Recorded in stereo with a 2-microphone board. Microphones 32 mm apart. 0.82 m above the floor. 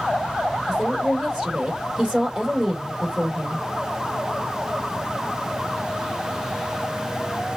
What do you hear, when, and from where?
0.7 s a woman speaking: 20° right (ahead or behind), 2 m